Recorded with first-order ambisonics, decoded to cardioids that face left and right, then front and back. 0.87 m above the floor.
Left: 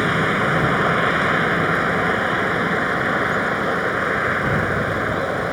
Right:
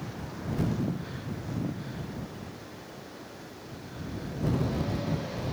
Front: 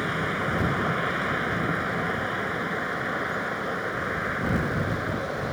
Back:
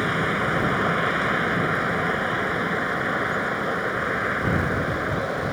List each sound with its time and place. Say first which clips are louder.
0.0 s a vehicle: left 23 dB, back 4 dB; 105° left